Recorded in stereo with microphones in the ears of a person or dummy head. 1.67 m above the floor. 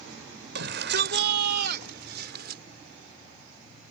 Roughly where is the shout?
Right.